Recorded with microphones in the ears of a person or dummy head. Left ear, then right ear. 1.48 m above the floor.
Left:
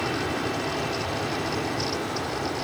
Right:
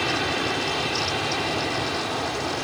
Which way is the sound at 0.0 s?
30° right (ahead or behind).